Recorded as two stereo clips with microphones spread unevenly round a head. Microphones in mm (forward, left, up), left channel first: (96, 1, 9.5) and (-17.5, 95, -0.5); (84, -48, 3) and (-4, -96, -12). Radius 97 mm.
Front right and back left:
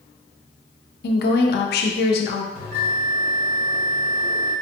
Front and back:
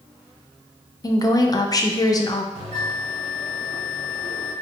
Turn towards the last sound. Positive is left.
turn(degrees=155)